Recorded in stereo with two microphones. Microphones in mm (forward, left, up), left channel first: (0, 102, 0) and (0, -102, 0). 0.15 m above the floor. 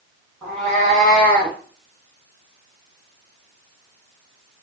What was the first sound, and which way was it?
A cat meowing, centre (ahead or behind).